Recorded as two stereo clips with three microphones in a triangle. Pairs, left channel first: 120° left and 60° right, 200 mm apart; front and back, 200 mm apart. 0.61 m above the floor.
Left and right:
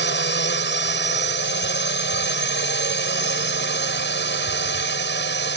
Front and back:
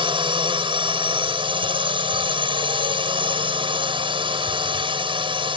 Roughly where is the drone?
Behind left.